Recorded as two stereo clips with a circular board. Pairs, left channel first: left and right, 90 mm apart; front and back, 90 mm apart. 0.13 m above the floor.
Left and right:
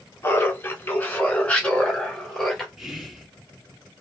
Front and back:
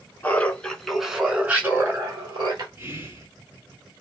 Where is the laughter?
55° left, 1.2 m; by 2.7 s 175° left, 1.5 m.